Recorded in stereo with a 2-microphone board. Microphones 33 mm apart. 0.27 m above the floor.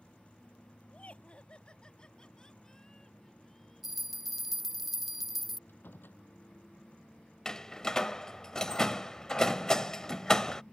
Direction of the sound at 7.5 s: 20° left (ahead or behind).